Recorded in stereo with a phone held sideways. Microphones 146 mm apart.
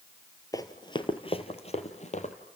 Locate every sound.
0.5 s running footsteps: 25° left (ahead or behind), 1.5 m; by 2.3 s 55° left (ahead or behind), 2 m